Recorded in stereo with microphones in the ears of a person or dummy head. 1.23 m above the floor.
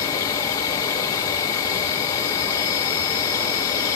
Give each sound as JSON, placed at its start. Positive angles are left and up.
{"t": 0.0, "sound": "an insect", "side_deg": 25, "distance_m": 0.9}